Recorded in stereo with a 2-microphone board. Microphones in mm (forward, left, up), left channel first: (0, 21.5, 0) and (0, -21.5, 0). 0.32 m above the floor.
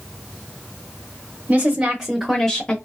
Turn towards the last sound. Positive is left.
turn(degrees=25)  # may be behind; listen again after turning